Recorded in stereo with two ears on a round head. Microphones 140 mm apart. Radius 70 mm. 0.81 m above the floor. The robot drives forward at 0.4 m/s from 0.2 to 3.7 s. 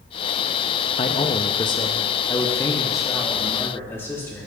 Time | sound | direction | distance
1.0 | a man speaking | 35° left (ahead or behind) | 0.6 m